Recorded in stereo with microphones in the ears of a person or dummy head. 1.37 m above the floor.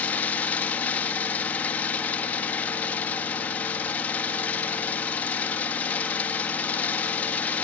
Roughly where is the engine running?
Centre.